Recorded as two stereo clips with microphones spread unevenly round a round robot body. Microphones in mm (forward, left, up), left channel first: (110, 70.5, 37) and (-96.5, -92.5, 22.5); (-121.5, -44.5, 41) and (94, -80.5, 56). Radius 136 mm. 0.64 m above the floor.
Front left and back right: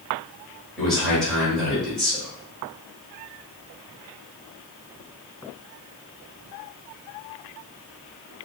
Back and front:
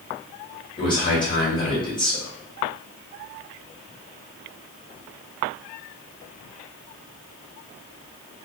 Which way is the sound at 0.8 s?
130° left.